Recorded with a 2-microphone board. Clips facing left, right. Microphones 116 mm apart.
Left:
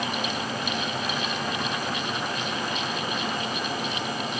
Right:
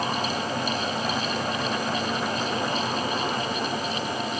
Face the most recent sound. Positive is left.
No sound to turn to.